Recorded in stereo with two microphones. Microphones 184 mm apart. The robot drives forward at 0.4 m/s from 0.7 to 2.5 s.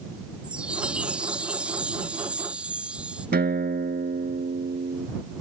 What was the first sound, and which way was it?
A chime, 5° right (ahead or behind).